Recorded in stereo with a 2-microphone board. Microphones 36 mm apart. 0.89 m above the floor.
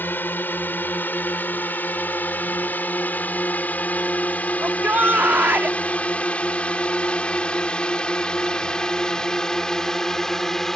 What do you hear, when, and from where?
0.0 s a drone: 65° left (ahead or behind); by 10.8 s 15° left (ahead or behind)
4.6 s a shout: 75° right (ahead or behind)